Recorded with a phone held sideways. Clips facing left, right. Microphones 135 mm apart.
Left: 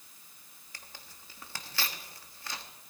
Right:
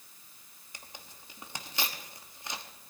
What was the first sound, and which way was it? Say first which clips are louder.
Tearing paper: right 2 dB; 20° right (ahead or behind).